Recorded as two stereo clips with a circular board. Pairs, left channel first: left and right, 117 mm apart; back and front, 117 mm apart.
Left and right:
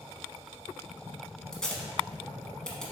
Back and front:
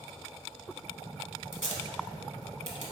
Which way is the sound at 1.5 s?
5° left.